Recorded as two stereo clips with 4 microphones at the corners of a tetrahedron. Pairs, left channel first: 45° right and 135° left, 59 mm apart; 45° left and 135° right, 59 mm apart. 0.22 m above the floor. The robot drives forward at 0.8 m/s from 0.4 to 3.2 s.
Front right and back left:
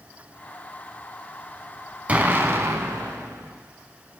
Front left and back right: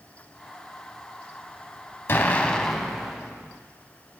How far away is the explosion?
About 0.7 m.